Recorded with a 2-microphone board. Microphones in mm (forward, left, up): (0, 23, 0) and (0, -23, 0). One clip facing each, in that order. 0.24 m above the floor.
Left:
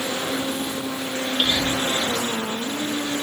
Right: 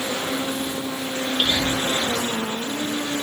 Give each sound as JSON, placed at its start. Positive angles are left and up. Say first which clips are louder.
{"t": 1.4, "sound": "whispering", "louder": "even", "side_deg": 5, "distance_m": 6.5}